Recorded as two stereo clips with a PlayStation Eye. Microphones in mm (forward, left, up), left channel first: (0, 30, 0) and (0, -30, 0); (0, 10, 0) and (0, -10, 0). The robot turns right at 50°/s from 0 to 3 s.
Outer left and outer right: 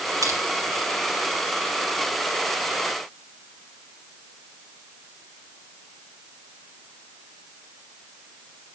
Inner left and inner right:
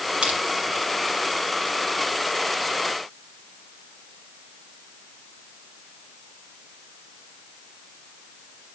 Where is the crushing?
70° right (ahead or behind), 5 m; by 0.4 s 65° right (ahead or behind), 5 m.